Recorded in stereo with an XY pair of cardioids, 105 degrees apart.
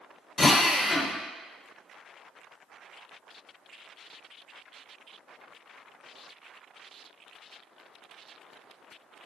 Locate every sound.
0.4 s a drill: 30° left, 0.5 m